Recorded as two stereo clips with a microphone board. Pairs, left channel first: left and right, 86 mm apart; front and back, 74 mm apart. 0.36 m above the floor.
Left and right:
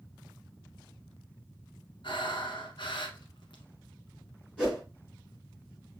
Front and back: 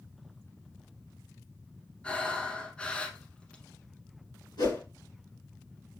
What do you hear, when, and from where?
2.0 s breathing: 75° left, 0.9 m
4.6 s a whoosh: 10° left, 4 m